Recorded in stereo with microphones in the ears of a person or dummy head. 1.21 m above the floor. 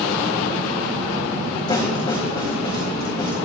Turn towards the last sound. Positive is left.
turn(degrees=25)  # may be behind; listen again after turning